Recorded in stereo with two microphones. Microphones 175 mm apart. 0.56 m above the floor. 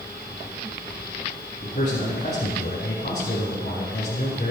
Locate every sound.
1.6 s a man speaking: 75° left (ahead or behind), 4.5 m